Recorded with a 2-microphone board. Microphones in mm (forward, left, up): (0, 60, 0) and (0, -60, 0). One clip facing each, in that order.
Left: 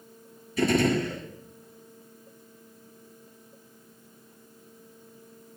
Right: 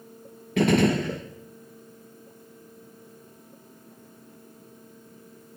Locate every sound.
0.6 s a gunshot: 80° right, 7.5 m